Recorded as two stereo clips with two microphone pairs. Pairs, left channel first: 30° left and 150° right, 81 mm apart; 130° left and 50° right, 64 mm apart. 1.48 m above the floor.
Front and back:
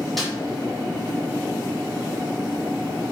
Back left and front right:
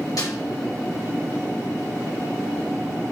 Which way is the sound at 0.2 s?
120° left.